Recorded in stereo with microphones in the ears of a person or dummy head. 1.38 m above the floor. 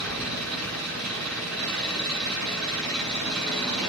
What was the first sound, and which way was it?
An engine running, 5° left (ahead or behind).